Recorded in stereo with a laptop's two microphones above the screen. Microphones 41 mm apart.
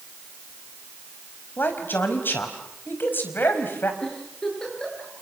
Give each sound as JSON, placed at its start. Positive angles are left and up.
{"t": 1.6, "sound": "a man speaking", "side_deg": 55, "distance_m": 5.0}
{"t": 4.0, "sound": "a giggle", "side_deg": 15, "distance_m": 9.5}